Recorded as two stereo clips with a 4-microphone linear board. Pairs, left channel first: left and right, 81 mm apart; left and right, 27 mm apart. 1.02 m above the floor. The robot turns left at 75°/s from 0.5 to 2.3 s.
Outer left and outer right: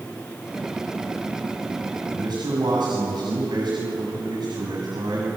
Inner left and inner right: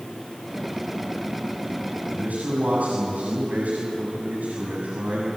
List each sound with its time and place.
2.1 s a man speaking: 50° right (ahead or behind), 7.5 m; by 5.3 s 65° right (ahead or behind), 7.5 m